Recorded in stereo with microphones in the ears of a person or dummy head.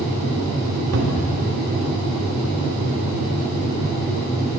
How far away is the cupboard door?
About 2 m.